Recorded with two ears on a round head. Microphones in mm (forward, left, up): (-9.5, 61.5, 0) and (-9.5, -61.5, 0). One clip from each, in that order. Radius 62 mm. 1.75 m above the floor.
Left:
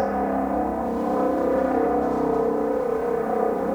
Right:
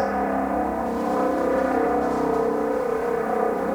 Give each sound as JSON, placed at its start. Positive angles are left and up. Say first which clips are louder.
{"t": 0.0, "sound": "a helicopter", "louder": "even", "side_deg": -35}